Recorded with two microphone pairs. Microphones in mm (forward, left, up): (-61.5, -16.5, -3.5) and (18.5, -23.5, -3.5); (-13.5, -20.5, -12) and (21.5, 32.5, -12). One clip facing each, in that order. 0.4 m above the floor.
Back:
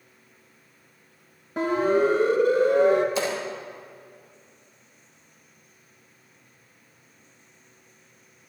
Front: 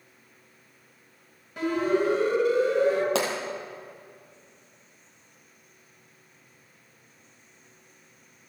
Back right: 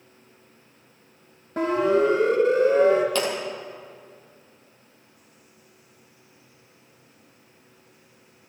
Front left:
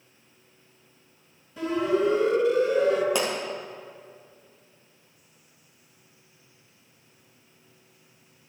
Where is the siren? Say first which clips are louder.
Back 3 dB, back right 4 dB; 135° right, 3 m; by 3.0 s 170° right, 2.5 m.